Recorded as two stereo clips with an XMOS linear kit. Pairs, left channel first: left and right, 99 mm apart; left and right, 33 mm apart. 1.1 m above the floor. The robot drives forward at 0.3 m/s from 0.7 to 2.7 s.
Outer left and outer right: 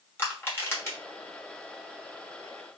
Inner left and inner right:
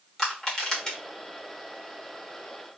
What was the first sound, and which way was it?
Crushing, 25° left (ahead or behind).